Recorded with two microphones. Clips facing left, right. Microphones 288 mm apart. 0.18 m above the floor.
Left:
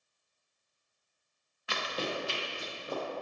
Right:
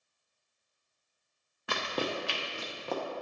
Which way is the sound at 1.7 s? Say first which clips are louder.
Right 2 dB; 55° right (ahead or behind).